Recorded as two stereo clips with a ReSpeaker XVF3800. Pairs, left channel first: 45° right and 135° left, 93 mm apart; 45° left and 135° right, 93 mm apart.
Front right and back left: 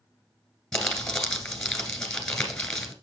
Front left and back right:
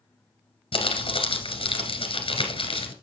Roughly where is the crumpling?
Ahead left.